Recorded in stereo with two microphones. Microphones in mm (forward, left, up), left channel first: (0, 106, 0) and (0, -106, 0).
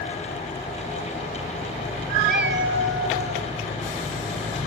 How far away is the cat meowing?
About 0.6 m.